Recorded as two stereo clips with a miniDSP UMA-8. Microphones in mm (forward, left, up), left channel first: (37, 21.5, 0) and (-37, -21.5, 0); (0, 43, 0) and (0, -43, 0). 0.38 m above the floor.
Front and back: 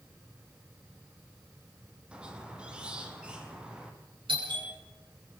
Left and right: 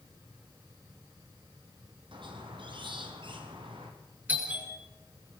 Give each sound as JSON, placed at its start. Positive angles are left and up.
{"t": 2.1, "sound": "a squeak", "azimuth_deg": -70, "distance_m": 3.0}
{"t": 4.3, "sound": "a doorbell", "azimuth_deg": -160, "distance_m": 7.5}